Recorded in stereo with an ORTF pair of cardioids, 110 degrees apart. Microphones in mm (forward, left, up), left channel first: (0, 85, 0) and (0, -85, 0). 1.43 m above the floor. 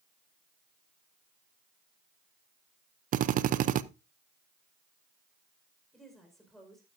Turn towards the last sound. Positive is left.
turn(degrees=0)